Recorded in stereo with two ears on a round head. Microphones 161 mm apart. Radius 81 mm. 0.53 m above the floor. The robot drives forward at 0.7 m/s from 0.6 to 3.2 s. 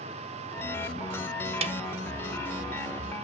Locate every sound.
1.6 s a snare drum: 35° right (ahead or behind), 0.5 m; by 1.8 s 40° right (ahead or behind), 0.5 m